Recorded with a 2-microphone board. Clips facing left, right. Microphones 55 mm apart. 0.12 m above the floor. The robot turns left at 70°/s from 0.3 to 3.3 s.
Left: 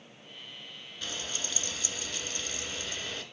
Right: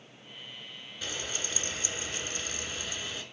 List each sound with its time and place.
1.0 s frying: 15° right, 1.5 m; by 3.2 s 175° right, 1.5 m